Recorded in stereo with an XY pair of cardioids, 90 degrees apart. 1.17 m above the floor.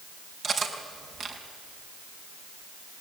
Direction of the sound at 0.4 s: 55° right.